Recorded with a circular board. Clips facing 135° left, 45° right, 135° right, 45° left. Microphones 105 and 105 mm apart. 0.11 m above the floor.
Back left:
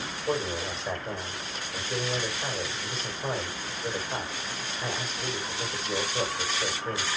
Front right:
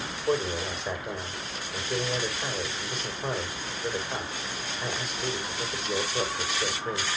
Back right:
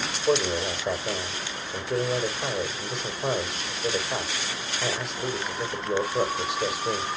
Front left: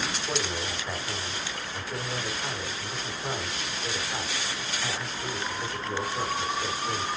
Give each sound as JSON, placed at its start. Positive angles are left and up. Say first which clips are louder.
{"t": 0.3, "sound": "a man speaking", "louder": "front right 2 dB, back right 12 dB", "azimuth_deg": -130, "distance_m": 4.5}